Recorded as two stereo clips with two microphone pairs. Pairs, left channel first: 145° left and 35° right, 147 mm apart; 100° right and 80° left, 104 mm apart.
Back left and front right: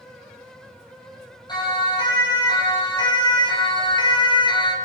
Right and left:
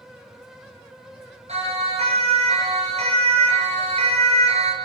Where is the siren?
80° left, 9 m; by 4.8 s 85° left, 5 m.